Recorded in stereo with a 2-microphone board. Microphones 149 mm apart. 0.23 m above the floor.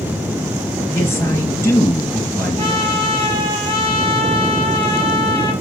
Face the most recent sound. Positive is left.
turn(degrees=-40)  # may be behind; listen again after turning